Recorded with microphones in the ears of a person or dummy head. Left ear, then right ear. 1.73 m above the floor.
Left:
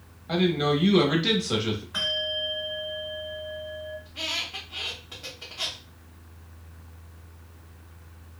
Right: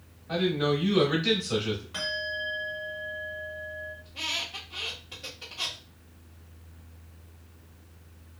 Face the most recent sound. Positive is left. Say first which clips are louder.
# left 1 dB
turn(degrees=5)  # may be behind; listen again after turning